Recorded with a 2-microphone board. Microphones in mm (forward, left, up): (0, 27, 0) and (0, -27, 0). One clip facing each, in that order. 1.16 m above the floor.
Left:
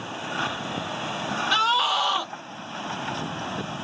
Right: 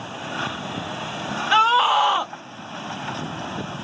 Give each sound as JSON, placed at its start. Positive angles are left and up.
{"t": 1.5, "sound": "a scream", "side_deg": -25, "distance_m": 0.7}